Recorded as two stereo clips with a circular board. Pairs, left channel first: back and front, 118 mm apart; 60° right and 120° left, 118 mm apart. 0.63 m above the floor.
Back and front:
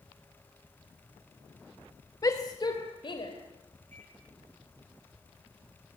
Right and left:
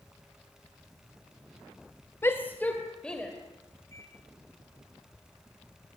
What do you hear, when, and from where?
2.2 s a shout: 125° right, 2 m; by 3.3 s 145° right, 3 m
3.9 s a microwave: 5° left, 8.5 m